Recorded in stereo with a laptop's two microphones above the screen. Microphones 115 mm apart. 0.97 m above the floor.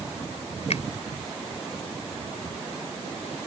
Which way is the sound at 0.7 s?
70° left (ahead or behind).